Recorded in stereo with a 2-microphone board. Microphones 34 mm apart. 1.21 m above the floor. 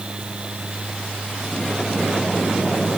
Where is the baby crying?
I don't hear a baby crying.